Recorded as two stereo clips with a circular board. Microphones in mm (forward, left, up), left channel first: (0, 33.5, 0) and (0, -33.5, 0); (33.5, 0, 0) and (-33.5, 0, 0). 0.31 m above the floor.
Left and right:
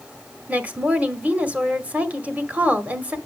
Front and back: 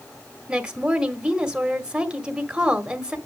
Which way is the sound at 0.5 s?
120° right.